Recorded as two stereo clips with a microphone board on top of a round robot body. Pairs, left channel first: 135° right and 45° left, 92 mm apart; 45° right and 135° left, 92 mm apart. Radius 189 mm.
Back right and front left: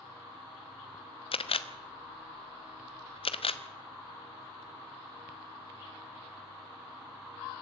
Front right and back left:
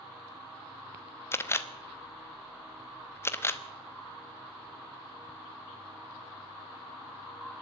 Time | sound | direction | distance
1.3 | a camera shutter | 110° right | 1.2 m